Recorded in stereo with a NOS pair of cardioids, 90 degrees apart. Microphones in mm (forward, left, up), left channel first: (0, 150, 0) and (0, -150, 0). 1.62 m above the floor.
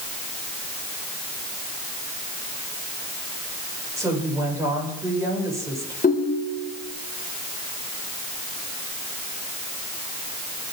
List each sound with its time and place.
4.0 s a woman speaking: 10° right, 8 m
6.0 s a ringtone: 25° left, 3 m